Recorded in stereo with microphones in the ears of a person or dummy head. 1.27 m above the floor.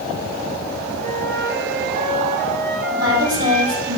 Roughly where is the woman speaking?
Centre.